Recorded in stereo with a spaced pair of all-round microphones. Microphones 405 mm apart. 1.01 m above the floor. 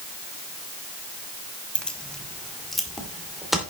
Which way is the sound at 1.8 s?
5° left (ahead or behind).